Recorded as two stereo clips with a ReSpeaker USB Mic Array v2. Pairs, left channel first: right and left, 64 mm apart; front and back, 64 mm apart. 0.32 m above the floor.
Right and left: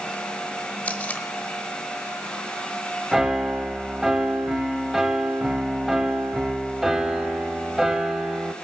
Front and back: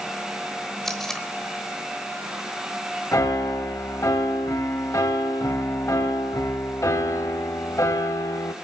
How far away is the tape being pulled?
About 1.1 m.